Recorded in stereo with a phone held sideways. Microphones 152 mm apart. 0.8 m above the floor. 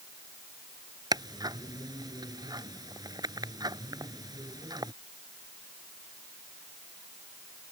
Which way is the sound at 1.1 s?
25° right (ahead or behind).